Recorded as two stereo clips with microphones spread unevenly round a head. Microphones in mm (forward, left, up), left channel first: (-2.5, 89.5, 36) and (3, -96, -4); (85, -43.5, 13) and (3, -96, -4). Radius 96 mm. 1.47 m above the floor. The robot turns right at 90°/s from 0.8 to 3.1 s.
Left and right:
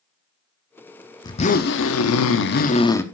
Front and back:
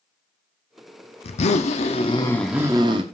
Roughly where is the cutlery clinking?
I don't hear cutlery clinking.